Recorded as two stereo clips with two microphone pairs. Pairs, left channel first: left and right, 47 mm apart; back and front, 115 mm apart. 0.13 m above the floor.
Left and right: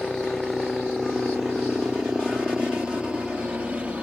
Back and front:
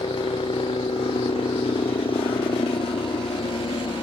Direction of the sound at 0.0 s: 160° left.